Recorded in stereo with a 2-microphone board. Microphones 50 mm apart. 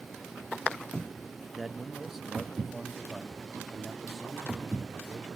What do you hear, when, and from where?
1.5 s a man speaking: centre (ahead or behind), 0.9 m; by 5.4 s 10° right (ahead or behind), 3 m